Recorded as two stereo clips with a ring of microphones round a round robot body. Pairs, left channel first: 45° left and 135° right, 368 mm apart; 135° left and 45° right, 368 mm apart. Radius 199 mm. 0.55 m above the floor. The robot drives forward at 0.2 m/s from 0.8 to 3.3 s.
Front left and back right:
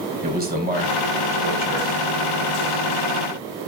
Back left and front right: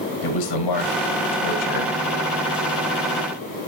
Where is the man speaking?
160° left, 4 m.